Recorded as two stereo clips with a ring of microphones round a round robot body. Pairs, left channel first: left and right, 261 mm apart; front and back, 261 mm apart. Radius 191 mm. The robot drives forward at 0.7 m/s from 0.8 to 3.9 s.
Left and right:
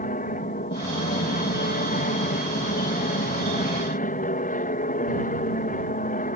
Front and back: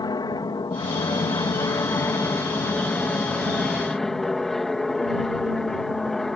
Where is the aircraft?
60° left; by 6.4 s 85° left.